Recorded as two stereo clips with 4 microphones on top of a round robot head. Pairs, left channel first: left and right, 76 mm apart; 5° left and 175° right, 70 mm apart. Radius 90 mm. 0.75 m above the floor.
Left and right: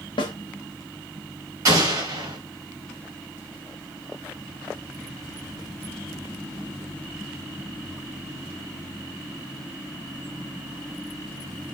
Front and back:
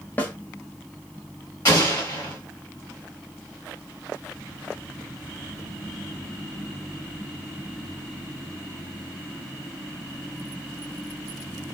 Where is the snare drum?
70° left, 0.8 m.